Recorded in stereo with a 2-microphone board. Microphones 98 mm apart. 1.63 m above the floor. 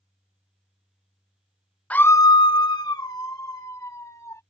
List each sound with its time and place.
1.9 s a scream: 15° left (ahead or behind); by 4.4 s 30° left (ahead or behind)